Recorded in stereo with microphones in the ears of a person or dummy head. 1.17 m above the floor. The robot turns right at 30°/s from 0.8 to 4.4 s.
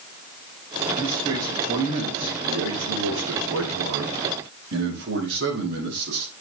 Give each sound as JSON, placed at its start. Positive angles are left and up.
{"t": 1.0, "sound": "a man speaking", "azimuth_deg": -170, "distance_m": 8.0}